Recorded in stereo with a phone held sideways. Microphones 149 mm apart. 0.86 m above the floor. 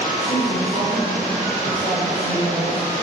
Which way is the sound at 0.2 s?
60° right (ahead or behind).